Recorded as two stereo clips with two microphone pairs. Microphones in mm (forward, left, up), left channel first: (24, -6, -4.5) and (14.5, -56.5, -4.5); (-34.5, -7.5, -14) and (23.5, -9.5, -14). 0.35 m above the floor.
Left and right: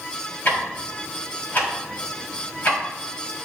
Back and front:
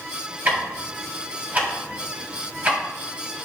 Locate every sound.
0.5 s ticking: 45° left, 2.5 m